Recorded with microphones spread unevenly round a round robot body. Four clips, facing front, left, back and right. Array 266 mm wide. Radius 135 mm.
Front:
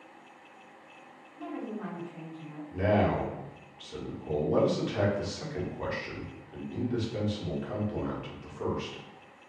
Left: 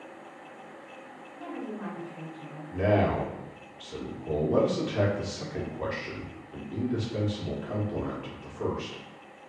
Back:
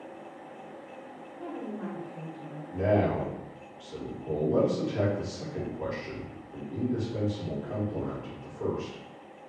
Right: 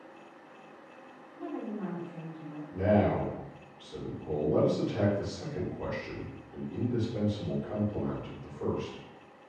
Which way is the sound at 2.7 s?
110° left.